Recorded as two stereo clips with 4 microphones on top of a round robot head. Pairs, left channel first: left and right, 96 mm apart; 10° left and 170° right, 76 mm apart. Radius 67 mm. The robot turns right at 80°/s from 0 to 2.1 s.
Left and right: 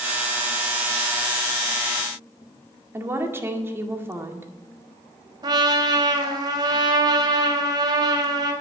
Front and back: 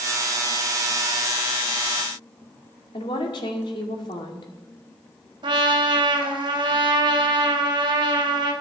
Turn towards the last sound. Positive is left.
turn(degrees=-140)